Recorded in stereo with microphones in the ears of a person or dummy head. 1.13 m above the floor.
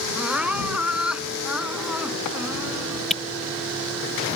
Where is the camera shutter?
Centre (ahead or behind).